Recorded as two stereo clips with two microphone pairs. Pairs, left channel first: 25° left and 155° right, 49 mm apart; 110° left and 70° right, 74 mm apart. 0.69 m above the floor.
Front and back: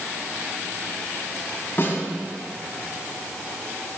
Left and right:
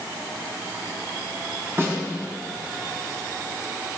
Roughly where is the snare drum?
Ahead.